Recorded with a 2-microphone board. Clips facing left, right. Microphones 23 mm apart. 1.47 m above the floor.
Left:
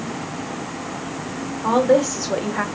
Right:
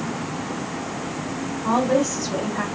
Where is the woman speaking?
70° left (ahead or behind), 0.9 m.